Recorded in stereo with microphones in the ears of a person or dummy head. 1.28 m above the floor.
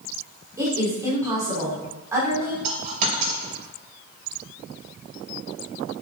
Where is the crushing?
No crushing in this recording.